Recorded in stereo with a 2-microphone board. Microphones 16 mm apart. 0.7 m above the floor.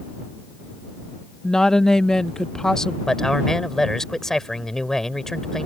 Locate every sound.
1.4 s a woman speaking: 40° left (ahead or behind)
3.1 s a man speaking: 30° left (ahead or behind)